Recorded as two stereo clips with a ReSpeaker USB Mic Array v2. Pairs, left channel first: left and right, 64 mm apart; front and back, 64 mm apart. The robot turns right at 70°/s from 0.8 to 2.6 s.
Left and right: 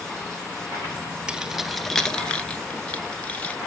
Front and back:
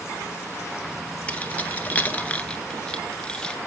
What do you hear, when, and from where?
1.3 s keys jangling: 35° right, 1.0 m; by 3.6 s 55° left, 1.0 m